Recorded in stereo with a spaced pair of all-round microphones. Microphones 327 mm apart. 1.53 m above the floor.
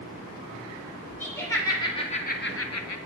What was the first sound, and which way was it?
Laughter, 5° left (ahead or behind).